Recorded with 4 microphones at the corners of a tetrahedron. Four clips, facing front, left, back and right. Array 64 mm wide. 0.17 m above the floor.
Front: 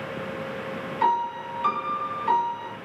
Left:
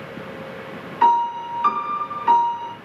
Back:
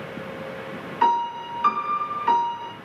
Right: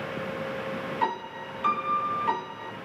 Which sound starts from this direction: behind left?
A piano, at 1.0 s.